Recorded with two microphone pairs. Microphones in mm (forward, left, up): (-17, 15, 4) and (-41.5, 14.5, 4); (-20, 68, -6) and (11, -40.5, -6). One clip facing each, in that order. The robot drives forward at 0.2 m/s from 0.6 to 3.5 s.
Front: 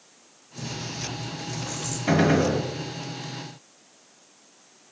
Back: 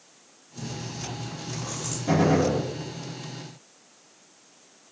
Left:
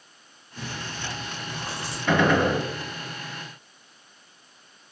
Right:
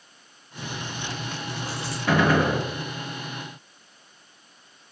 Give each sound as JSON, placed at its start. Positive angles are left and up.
{"t": 0.6, "sound": "chewing", "azimuth_deg": 135, "distance_m": 1.5}
{"t": 2.1, "sound": "a gunshot", "azimuth_deg": 10, "distance_m": 0.7}